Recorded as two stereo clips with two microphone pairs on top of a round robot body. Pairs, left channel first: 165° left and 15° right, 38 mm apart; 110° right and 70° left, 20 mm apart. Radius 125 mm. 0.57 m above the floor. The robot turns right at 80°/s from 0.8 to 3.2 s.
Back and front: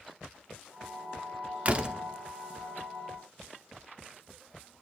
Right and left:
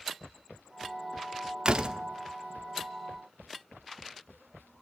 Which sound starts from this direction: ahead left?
A door slam, at 1.6 s.